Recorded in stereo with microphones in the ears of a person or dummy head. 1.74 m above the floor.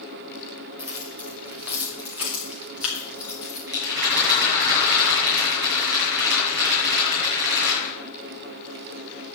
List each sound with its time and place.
0.8 s keys jangling: 10° right (ahead or behind), 3 m; by 3.6 s 5° right (ahead or behind), 4.5 m
3.7 s a rattle: 60° right (ahead or behind), 7 m